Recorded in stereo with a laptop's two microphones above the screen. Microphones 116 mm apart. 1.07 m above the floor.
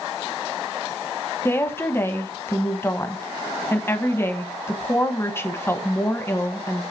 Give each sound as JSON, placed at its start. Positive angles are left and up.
{"t": 1.4, "sound": "a woman speaking", "side_deg": 20, "distance_m": 0.9}